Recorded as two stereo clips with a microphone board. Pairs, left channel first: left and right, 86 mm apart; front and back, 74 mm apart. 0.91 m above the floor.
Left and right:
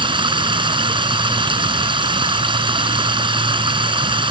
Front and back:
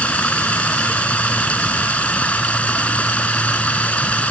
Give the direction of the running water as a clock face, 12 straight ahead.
2 o'clock.